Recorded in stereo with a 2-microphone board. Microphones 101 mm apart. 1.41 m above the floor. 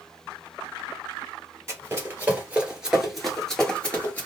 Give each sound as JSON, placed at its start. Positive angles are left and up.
{"t": 1.7, "sound": "running footsteps", "side_deg": -30, "distance_m": 1.6}